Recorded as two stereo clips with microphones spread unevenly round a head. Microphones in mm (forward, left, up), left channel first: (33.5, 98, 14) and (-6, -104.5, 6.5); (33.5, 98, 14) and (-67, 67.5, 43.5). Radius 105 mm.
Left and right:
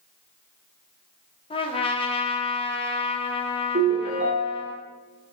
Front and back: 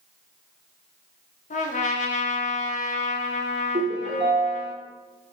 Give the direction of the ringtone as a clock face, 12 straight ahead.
5 o'clock.